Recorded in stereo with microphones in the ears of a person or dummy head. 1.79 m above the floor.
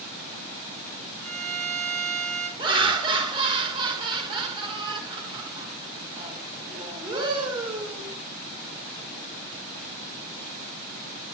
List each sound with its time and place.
1.2 s a violin: 45° right (ahead or behind), 4.5 m
2.6 s laughter: 25° right (ahead or behind), 1.9 m